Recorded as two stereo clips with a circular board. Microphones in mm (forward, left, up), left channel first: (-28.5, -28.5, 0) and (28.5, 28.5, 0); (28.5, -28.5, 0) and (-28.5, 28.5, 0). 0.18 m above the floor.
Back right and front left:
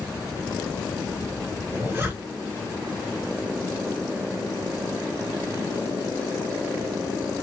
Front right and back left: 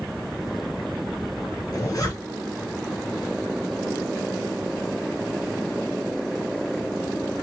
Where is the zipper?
10° right, 1.8 m.